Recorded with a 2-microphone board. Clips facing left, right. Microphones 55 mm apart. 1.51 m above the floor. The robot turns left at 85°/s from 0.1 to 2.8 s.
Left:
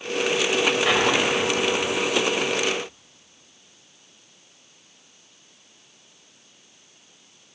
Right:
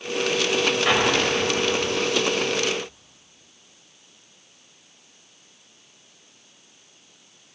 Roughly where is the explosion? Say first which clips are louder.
Even; centre.